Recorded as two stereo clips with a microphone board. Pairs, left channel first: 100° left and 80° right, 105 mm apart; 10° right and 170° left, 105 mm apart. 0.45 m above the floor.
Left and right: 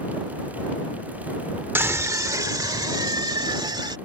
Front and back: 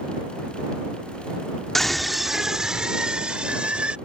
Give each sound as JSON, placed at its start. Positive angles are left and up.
{"t": 1.8, "sound": "a scream", "azimuth_deg": -95}